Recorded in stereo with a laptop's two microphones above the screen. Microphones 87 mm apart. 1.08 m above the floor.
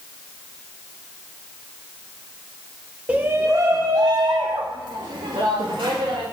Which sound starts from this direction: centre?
A shout, at 3.1 s.